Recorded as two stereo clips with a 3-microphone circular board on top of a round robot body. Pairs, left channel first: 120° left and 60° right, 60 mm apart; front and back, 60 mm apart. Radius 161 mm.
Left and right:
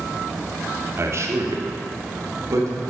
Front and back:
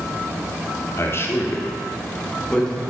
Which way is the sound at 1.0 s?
30° right.